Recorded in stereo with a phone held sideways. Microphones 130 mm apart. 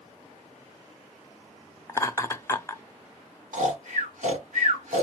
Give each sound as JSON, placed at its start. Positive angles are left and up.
{"t": 1.9, "sound": "laughter", "side_deg": 20, "distance_m": 0.9}
{"t": 3.5, "sound": "snoring", "side_deg": -80, "distance_m": 3.0}